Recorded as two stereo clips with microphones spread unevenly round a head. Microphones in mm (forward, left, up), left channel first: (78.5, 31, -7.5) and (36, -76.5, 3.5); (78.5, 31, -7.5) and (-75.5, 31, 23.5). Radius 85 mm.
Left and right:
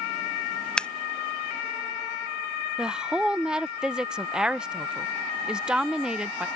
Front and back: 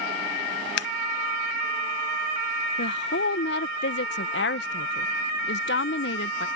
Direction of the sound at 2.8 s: 30° right.